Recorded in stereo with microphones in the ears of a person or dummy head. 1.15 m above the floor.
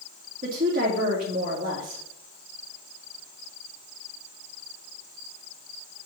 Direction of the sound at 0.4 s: 50° right (ahead or behind).